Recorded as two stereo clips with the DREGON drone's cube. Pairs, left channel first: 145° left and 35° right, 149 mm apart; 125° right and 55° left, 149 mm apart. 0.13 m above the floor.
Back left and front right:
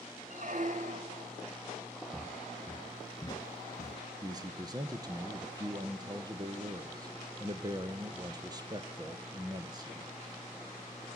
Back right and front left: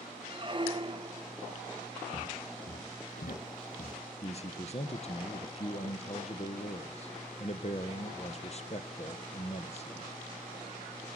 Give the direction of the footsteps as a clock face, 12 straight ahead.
4 o'clock.